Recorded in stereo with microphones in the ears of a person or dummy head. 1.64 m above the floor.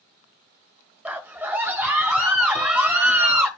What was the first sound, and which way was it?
A scream, 10° right (ahead or behind).